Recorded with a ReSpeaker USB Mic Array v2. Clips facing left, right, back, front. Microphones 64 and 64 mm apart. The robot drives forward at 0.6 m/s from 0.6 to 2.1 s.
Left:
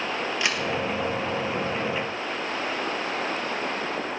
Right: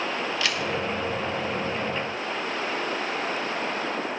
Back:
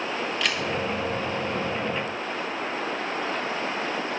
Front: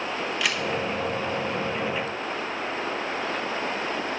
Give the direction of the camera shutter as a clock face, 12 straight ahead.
9 o'clock.